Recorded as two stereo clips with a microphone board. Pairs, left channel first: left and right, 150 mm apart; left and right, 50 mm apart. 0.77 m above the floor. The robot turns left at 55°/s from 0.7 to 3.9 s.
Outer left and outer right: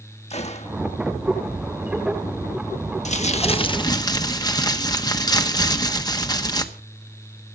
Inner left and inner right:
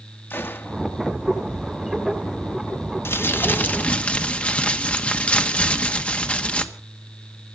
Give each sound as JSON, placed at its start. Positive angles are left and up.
{"t": 0.3, "sound": "a gunshot", "side_deg": 45, "distance_m": 1.4}
{"t": 3.0, "sound": "crumpling", "azimuth_deg": 80, "distance_m": 1.3}